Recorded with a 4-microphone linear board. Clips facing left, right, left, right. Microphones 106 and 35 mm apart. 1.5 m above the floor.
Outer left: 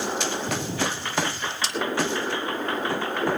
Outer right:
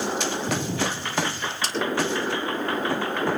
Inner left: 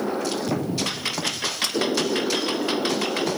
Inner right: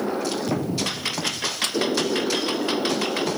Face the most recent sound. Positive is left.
turn(degrees=-50)  # may be behind; listen again after turning